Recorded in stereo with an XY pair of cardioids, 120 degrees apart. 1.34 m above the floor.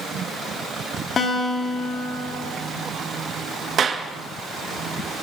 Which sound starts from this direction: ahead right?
A clap, at 3.8 s.